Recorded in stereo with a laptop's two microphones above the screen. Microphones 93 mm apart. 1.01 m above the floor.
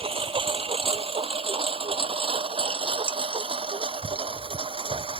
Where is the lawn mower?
85° right; by 5.2 s 80° right.